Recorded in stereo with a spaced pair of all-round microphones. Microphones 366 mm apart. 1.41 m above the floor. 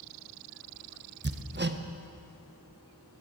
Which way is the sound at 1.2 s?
30° right (ahead or behind).